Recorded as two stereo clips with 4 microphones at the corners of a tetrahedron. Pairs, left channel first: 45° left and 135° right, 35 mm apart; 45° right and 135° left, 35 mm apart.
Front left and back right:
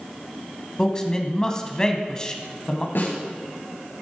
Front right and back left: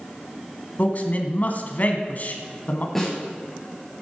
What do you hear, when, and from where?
0.8 s a man speaking: 20° right, 2 m
3.0 s a snare drum: 35° left, 6 m